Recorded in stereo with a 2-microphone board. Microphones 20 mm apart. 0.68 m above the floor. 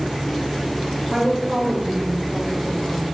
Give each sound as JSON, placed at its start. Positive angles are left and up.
{"t": 1.1, "sound": "a woman speaking", "side_deg": -65, "distance_m": 3.0}